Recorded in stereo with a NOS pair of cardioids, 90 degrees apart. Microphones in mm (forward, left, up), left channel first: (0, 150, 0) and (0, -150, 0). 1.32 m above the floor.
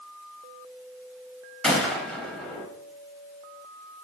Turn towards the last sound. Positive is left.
turn(degrees=0)